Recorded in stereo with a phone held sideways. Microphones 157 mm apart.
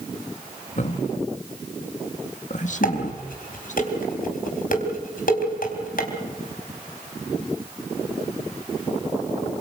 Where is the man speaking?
55° left (ahead or behind), 1.8 m.